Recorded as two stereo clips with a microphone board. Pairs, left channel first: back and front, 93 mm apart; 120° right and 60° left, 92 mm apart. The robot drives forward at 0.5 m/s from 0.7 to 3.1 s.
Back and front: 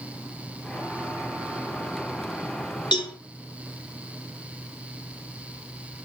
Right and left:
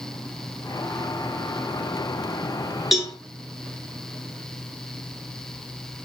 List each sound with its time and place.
2.9 s a cowbell: 145° left, 1.2 m; by 3.1 s 150° left, 1.3 m